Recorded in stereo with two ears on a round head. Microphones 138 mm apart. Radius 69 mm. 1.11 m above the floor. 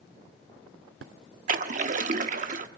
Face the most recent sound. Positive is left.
turn(degrees=-50)  # may be behind; listen again after turning